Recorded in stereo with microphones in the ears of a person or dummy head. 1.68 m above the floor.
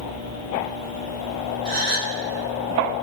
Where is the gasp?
40° right (ahead or behind), 2.5 m.